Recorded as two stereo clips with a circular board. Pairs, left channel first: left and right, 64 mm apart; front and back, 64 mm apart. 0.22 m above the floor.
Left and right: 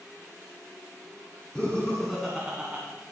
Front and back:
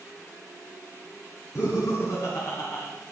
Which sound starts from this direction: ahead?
Laughter, at 1.6 s.